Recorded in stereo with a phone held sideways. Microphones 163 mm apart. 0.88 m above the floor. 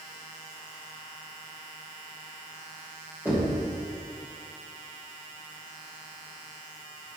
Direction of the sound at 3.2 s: 10° right (ahead or behind).